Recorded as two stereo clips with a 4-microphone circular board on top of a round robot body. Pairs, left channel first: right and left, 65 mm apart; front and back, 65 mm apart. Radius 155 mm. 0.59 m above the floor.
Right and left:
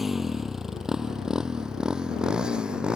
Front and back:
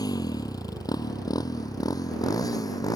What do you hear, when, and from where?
0.0 s a motorcycle: 5° left; by 3.0 s 15° left